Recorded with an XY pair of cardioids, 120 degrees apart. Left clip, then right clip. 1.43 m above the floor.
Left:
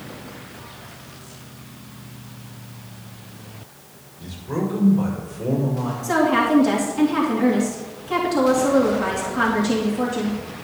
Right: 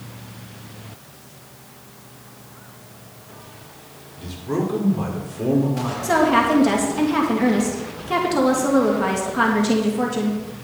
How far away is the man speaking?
About 5 m.